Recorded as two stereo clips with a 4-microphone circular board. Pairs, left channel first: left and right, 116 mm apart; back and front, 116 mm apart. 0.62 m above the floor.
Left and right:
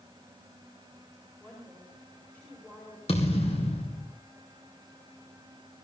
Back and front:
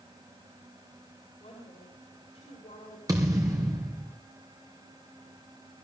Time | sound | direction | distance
1.4 | a woman speaking | 165° left | 5.5 m
3.1 | a thud | 60° left | 3.5 m